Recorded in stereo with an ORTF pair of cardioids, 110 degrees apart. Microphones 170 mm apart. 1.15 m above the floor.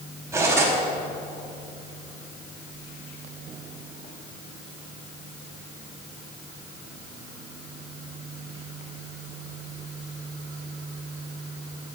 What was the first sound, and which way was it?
Cutlery clinking, 15° right.